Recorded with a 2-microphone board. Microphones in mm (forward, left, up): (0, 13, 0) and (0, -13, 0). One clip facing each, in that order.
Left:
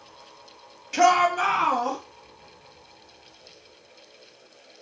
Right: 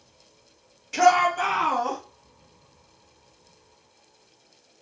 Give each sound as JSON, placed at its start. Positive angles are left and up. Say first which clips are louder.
{"t": 0.9, "sound": "a shout", "louder": "even", "side_deg": 10, "distance_m": 0.9}